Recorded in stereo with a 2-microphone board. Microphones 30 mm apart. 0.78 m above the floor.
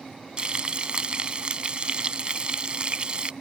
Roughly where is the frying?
Right.